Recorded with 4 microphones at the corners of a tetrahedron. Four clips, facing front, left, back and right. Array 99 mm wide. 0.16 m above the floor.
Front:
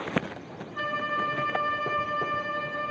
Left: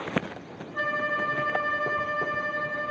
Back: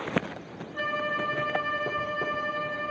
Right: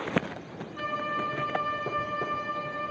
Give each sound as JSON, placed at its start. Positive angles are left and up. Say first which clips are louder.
{"t": 0.7, "sound": "a violin", "louder": "left 4 dB, even", "azimuth_deg": 105, "distance_m": 0.8}